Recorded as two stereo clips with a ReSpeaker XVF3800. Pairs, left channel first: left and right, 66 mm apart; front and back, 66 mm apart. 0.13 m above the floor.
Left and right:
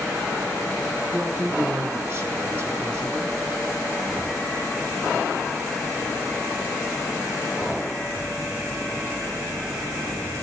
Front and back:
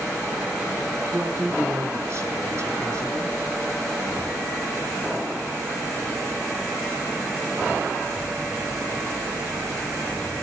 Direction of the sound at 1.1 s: 145° right.